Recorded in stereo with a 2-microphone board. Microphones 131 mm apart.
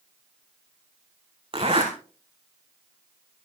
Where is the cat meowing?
I don't hear a cat meowing.